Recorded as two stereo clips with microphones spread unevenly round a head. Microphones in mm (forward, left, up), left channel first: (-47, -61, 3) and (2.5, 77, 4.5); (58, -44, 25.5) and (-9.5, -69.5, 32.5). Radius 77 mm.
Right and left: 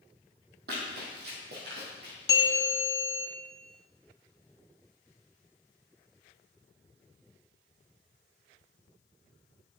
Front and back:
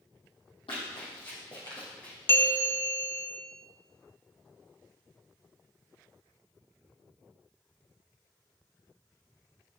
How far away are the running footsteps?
About 2.5 m.